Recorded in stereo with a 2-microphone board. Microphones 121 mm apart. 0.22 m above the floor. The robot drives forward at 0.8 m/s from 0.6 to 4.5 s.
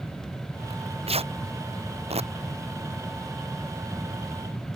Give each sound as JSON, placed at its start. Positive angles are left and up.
{"t": 0.7, "sound": "tearing paper", "side_deg": -55}